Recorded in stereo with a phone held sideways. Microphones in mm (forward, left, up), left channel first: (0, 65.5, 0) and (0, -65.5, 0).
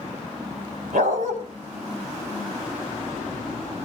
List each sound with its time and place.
0.9 s a dog barking: 80° right, 4 m